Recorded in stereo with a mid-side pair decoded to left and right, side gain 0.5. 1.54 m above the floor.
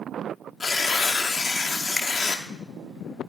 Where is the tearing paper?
45° left, 1.0 m.